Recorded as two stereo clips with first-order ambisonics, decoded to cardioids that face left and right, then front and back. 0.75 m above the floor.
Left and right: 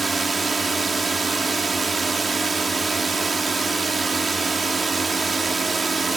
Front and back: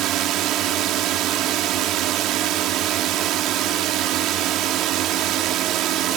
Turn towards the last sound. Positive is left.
turn(degrees=-165)